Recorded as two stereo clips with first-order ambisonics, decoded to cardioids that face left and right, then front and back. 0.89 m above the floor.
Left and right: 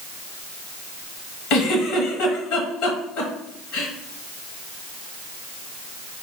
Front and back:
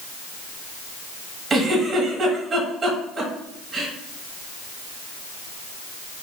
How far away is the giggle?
About 1.3 m.